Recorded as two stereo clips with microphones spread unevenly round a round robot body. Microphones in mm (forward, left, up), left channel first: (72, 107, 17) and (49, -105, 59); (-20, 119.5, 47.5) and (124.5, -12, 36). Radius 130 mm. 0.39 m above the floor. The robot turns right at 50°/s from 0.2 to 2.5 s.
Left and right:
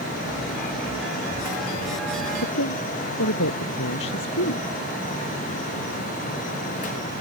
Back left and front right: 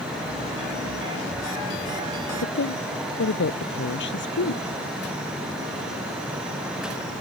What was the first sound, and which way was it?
A woman speaking, 115° left.